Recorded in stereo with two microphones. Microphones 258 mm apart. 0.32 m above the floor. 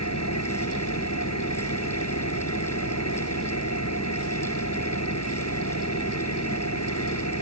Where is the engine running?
80° left.